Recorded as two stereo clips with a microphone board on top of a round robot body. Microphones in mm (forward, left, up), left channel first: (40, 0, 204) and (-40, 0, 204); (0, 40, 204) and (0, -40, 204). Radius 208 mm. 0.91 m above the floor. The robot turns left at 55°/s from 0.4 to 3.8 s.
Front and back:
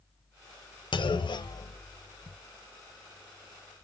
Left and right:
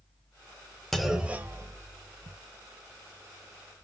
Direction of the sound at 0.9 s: 5° left.